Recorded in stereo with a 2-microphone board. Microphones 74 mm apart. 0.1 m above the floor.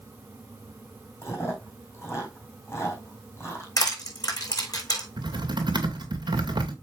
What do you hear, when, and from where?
1.2 s chewing: 35° left (ahead or behind), 3.5 m
3.8 s crushing: 55° left (ahead or behind), 4.5 m
5.2 s typing on a keyboard: 85° right, 2 m